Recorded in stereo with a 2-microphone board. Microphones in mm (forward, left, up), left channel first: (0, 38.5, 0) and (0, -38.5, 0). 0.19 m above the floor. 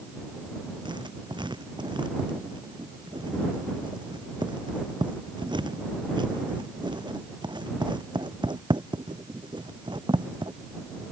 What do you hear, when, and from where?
0.8 s writing: 85° right